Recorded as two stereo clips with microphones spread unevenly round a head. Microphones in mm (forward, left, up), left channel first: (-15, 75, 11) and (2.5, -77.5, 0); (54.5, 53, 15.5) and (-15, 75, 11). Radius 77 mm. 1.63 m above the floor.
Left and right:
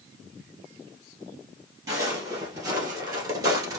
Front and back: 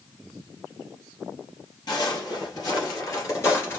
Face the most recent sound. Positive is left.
turn(degrees=-30)